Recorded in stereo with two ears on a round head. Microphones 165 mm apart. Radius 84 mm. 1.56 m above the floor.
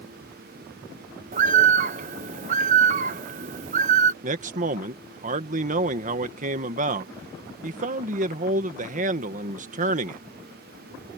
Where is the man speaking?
45° right (ahead or behind).